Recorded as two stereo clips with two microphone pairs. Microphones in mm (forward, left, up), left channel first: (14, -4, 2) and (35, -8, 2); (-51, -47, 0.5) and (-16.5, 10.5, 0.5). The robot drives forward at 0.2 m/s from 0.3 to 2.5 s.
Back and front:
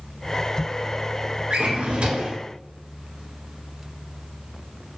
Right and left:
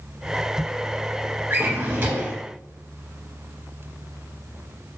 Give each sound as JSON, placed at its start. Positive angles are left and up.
{"t": 1.5, "sound": "a drawer", "azimuth_deg": 0, "distance_m": 0.7}